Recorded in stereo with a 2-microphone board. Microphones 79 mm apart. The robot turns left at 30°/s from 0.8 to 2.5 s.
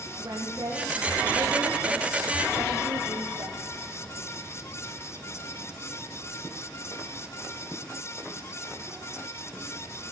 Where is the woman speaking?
50° right, 8.5 m; by 3.6 s 105° right, 8.5 m.